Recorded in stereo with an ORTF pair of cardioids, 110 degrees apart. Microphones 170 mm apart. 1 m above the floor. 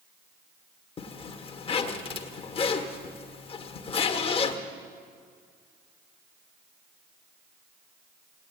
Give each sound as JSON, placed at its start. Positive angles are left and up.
{"t": 1.0, "sound": "a zipper", "azimuth_deg": 35, "distance_m": 1.5}